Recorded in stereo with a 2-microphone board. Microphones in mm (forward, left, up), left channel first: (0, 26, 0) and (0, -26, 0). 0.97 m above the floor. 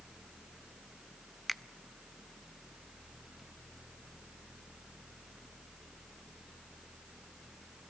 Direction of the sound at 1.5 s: Centre (ahead or behind).